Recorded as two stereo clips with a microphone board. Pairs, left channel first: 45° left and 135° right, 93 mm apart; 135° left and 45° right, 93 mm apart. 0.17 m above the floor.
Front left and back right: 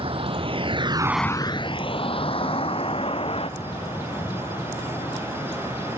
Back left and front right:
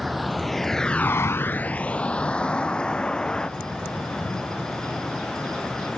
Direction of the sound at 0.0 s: 135° right.